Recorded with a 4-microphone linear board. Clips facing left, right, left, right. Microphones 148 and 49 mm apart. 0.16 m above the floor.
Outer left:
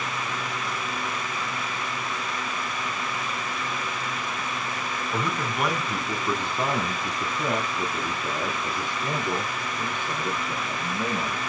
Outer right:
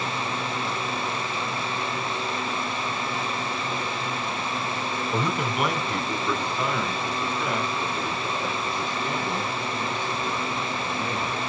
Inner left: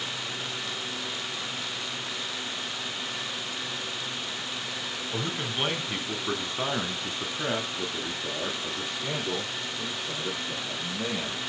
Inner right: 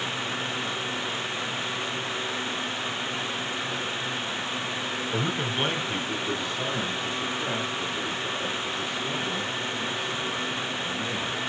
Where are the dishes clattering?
No dishes clattering in this recording.